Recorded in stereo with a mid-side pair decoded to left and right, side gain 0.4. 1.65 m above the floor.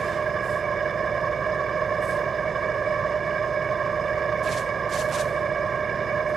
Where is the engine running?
45° right.